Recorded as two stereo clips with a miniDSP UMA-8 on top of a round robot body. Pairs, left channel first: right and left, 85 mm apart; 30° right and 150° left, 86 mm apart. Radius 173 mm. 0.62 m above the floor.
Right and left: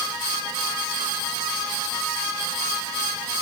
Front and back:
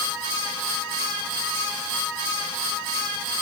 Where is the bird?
No bird in this recording.